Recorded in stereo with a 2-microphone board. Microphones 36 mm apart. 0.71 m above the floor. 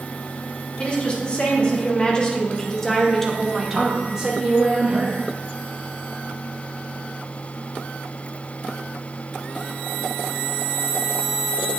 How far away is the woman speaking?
About 2.5 m.